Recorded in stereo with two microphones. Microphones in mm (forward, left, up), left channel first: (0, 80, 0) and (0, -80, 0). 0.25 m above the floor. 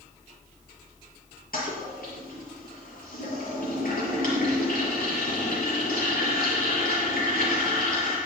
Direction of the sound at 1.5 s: 70° left (ahead or behind).